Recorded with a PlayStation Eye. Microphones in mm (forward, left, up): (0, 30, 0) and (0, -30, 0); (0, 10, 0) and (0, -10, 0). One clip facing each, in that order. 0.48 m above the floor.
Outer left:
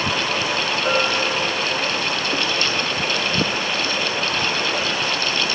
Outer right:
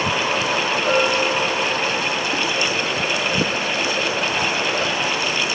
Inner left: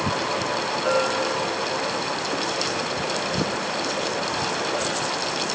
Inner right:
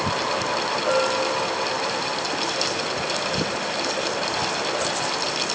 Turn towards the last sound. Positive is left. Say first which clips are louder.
# outer right 2 dB, even
turn(degrees=30)  # may be behind; listen again after turning